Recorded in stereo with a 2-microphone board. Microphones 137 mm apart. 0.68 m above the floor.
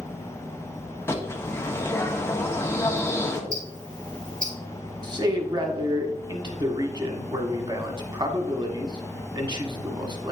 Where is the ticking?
75° right (ahead or behind), 2.5 m.